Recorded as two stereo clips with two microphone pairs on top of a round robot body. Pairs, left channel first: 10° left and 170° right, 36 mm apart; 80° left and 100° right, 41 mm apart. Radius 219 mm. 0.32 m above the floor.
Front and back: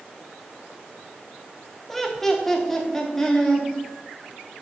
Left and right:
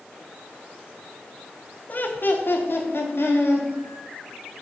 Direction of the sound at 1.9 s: 90° left.